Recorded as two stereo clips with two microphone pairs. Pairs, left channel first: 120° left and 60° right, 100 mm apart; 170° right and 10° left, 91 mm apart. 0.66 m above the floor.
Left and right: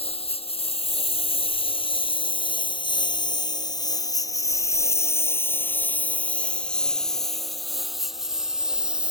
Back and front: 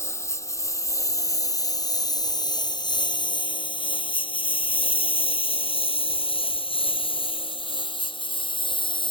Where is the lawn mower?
135° left; by 9.1 s 140° right.